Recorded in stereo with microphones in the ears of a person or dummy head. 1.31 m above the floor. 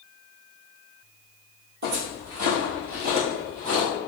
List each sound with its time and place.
1.8 s footsteps: 45° right (ahead or behind), 1.8 m